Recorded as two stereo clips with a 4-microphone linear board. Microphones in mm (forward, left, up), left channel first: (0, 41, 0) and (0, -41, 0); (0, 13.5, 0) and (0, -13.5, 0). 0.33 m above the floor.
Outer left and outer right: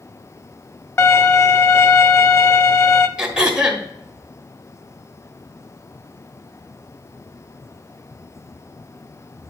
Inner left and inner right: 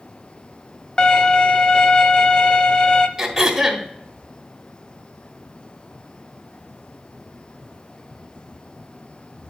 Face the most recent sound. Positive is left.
turn(degrees=-10)  # may be behind; listen again after turning